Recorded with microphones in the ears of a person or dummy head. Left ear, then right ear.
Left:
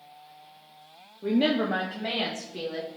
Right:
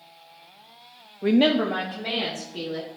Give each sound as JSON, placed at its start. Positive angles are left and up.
{"t": 1.2, "sound": "a woman speaking", "side_deg": -60, "distance_m": 0.5}